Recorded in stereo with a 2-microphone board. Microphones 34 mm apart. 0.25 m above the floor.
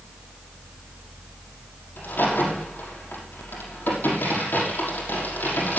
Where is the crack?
85° left, 5.5 m.